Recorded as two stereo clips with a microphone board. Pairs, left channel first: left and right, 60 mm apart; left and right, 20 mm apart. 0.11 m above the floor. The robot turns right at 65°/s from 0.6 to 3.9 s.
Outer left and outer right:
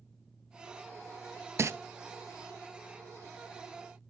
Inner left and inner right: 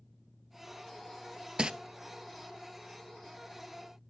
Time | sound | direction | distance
1.6 | crumpling | 45° right (ahead or behind) | 0.8 m